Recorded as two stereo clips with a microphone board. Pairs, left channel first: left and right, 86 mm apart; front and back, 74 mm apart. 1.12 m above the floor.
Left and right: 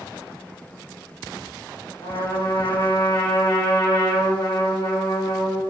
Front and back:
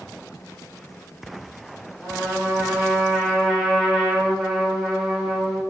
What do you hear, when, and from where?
2.0 s a trumpet: 95° left, 4.5 m